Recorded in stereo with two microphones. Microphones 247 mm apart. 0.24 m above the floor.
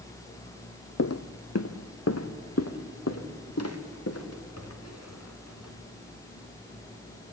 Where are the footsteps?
75° left (ahead or behind), 0.7 m; by 5.7 s 85° left, 3.5 m.